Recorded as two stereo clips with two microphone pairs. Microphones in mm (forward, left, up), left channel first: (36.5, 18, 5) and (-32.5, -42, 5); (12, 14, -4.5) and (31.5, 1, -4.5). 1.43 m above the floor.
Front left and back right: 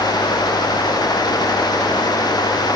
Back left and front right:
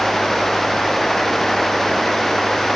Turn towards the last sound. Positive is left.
No sound to turn to.